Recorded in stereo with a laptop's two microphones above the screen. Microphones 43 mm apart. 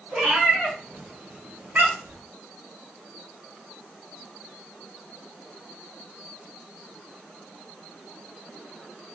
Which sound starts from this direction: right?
A cat meowing, at 0.1 s.